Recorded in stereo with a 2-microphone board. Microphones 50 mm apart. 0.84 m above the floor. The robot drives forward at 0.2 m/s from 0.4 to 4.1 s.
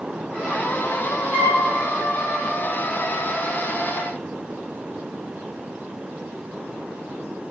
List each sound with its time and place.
1.3 s a flute: 30° right (ahead or behind), 2 m